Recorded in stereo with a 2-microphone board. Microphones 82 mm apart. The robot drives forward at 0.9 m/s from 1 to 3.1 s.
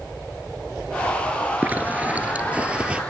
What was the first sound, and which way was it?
A zipper, 20° right (ahead or behind).